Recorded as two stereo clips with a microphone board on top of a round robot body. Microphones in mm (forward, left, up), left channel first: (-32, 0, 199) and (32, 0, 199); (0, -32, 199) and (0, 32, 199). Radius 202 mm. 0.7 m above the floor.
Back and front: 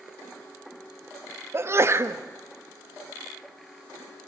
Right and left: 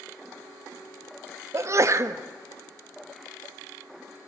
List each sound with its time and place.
1.5 s a sneeze: 50° left, 1.4 m